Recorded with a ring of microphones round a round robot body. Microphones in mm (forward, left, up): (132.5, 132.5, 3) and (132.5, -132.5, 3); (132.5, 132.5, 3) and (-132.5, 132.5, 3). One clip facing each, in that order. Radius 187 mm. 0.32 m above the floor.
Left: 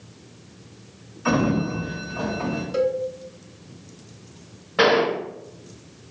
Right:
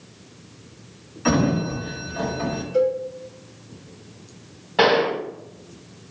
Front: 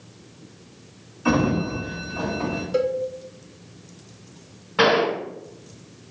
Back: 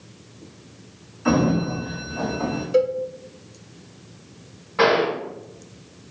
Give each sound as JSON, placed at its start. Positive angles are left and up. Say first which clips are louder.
{"t": 1.2, "sound": "a sliding door", "louder": "right 1 dB, back 1 dB", "azimuth_deg": -90, "distance_m": 1.1}
{"t": 2.7, "sound": "a cowbell", "louder": "right 3 dB, back 3 dB", "azimuth_deg": 90, "distance_m": 0.7}
{"t": 4.8, "sound": "a gunshot", "louder": "even, even", "azimuth_deg": -5, "distance_m": 1.5}